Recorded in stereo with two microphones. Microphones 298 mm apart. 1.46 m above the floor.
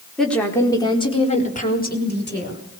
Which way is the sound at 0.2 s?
Centre (ahead or behind).